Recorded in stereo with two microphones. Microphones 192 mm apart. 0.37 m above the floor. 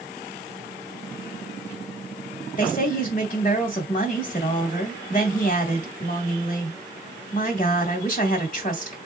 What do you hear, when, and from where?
2.6 s a woman speaking: 40° left (ahead or behind), 1.4 m